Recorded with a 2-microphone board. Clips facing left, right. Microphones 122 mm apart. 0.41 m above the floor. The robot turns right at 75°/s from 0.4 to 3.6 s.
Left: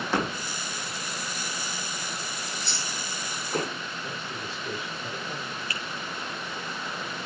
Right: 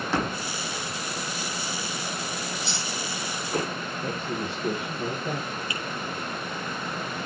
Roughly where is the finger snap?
Centre.